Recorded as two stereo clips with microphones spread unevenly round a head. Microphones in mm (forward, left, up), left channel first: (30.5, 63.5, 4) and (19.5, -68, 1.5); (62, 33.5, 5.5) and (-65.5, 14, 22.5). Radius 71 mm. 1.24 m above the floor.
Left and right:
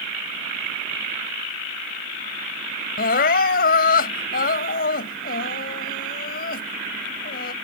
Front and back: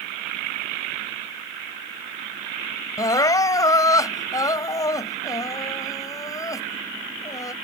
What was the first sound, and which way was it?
Crying, 75° left.